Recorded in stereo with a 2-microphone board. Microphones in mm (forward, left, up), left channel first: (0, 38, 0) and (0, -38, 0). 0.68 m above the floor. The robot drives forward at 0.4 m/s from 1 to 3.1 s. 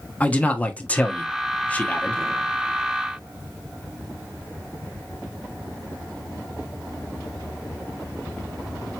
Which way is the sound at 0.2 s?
20° left (ahead or behind).